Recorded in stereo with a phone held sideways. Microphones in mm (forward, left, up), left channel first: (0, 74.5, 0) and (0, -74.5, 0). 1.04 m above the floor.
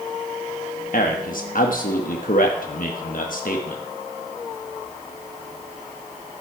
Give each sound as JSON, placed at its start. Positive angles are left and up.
{"t": 0.9, "sound": "a man speaking", "side_deg": 70, "distance_m": 1.2}